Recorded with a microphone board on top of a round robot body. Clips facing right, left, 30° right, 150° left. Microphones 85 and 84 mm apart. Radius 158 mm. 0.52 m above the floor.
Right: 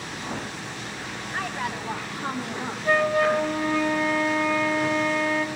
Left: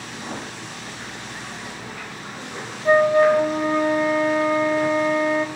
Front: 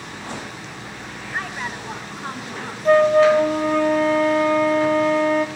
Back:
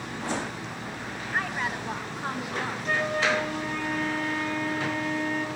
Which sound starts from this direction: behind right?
A woman speaking, at 1.3 s.